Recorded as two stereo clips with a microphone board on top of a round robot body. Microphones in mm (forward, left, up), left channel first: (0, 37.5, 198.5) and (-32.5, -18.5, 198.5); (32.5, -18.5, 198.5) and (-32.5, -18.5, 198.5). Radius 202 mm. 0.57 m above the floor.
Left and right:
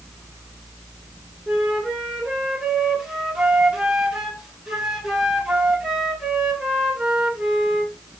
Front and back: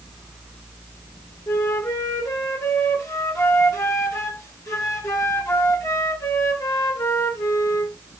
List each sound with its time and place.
1.5 s a flute: 40° right, 2 m